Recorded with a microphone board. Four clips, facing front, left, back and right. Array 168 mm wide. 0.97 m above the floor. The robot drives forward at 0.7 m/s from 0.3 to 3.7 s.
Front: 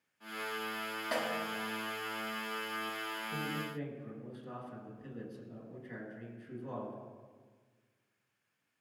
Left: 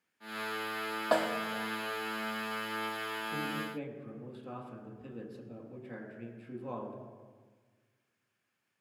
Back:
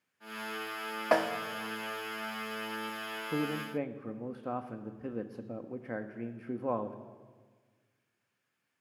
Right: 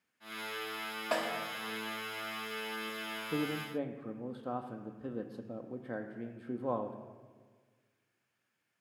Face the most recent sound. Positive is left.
turn(degrees=-150)